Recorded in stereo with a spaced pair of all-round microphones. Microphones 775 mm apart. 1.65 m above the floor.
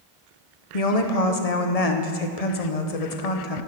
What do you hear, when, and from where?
0.7 s a woman speaking: 50° left (ahead or behind), 0.9 m